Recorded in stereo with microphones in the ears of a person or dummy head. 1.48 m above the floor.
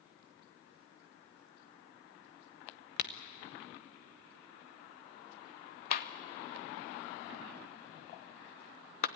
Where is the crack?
50° left (ahead or behind), 0.9 m.